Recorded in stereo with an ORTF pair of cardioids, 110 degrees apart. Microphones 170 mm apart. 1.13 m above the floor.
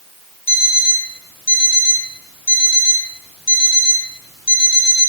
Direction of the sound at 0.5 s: 35° left.